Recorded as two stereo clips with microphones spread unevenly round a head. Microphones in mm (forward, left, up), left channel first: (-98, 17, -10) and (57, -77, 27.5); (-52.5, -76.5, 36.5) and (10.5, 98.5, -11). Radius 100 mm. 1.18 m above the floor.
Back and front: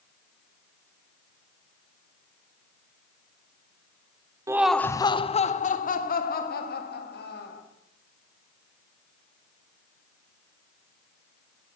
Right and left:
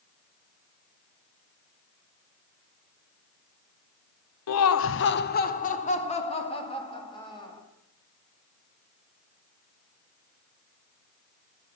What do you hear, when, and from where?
4.5 s laughter: 110° right, 0.6 m; by 7.6 s straight behind, 2.5 m